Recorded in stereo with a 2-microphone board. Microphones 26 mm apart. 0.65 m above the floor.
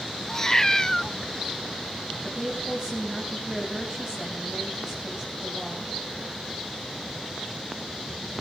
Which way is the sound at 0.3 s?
20° left (ahead or behind).